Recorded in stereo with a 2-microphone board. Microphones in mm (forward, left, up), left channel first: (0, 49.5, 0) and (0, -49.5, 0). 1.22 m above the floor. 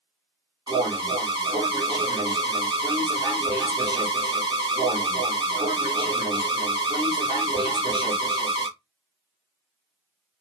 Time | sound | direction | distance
0.7 | an alarm | 45° right (ahead or behind) | 3 m